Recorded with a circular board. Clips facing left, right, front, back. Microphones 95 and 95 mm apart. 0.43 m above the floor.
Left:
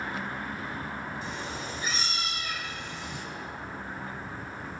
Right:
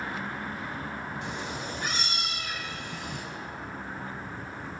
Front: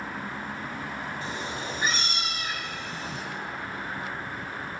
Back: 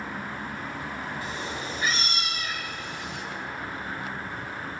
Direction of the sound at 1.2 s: 70° right.